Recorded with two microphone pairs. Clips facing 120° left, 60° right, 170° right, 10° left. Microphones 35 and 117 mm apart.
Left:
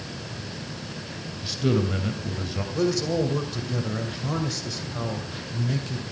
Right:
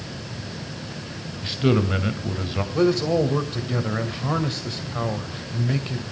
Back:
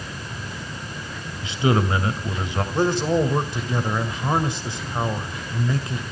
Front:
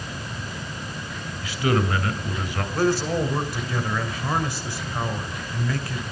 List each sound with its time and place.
1.4 s a man speaking: 110° right, 2.5 m
2.7 s a man speaking: 105° right, 2.5 m